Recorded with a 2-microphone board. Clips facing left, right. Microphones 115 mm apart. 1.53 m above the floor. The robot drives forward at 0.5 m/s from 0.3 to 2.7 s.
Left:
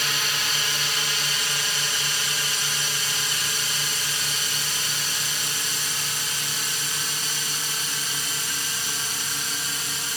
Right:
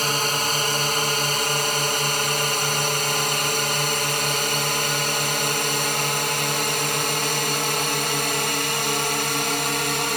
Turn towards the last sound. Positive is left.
turn(degrees=-65)  # may be behind; listen again after turning